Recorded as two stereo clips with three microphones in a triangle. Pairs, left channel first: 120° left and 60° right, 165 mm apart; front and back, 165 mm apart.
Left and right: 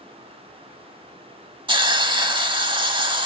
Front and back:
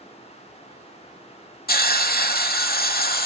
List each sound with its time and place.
1.7 s a hiss: 5° right, 0.7 m